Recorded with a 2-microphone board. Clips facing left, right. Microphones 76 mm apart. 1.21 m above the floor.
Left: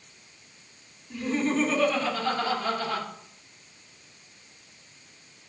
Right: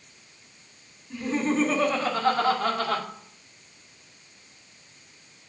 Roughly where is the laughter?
Centre.